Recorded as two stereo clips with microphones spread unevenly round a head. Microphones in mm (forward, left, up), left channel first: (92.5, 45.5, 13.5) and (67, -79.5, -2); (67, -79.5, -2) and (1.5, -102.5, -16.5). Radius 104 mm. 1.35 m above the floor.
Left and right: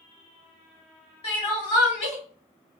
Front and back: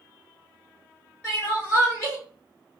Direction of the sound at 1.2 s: 80° left.